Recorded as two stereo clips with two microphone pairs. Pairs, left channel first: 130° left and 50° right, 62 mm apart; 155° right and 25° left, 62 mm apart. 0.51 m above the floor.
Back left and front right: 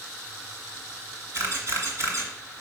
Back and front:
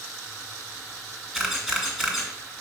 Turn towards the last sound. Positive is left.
turn(degrees=-70)